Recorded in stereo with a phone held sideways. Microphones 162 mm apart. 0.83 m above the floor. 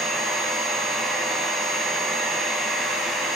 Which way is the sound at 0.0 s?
Centre (ahead or behind).